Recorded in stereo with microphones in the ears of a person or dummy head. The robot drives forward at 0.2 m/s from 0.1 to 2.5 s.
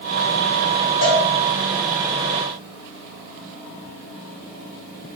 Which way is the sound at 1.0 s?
45° left (ahead or behind).